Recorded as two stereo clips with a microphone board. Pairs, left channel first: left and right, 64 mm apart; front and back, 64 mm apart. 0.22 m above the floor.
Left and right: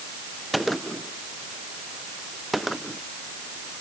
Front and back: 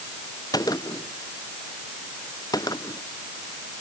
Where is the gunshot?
Straight ahead.